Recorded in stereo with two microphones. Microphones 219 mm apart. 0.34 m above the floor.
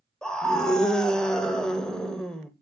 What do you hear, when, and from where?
0.2 s a scream: 5° left (ahead or behind), 0.9 m